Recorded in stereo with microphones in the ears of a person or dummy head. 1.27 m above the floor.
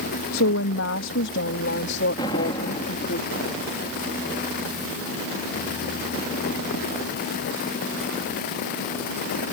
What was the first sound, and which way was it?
A woman speaking, 75° left (ahead or behind).